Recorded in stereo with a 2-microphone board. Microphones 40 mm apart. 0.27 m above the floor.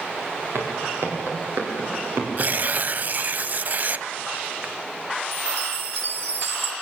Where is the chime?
70° right (ahead or behind), 4 m.